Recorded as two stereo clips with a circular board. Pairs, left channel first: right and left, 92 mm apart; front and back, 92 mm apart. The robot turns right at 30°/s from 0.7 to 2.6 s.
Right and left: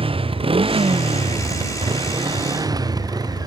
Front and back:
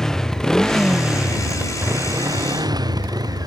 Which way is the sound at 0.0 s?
85° left.